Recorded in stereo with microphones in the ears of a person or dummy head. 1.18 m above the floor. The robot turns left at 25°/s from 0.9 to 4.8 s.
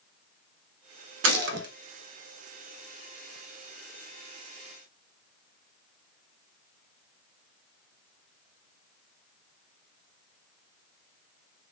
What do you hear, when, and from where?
1.2 s a gunshot: 70° right (ahead or behind), 0.6 m; by 1.7 s 60° right (ahead or behind), 0.6 m